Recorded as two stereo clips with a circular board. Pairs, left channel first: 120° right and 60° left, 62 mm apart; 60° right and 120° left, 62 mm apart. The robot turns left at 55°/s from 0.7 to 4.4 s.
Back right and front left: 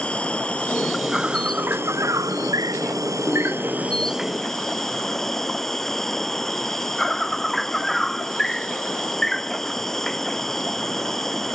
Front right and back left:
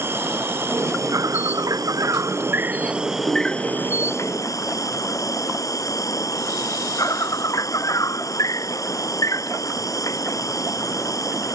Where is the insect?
170° left; by 11.6 s 35° right.